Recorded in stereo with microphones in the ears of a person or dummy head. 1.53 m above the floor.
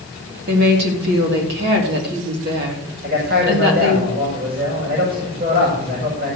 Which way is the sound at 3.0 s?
70° right (ahead or behind).